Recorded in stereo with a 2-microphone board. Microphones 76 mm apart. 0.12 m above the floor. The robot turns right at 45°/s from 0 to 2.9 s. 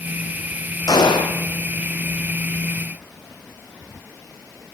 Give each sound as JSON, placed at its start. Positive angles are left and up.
{"t": 0.9, "sound": "a gunshot", "side_deg": 60, "distance_m": 3.0}